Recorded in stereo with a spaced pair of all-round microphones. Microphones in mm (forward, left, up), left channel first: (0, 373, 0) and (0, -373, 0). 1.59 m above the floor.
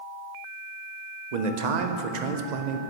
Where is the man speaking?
70° right (ahead or behind), 0.7 m.